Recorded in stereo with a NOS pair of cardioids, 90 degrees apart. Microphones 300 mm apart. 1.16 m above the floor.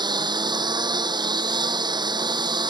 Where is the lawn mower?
15° right.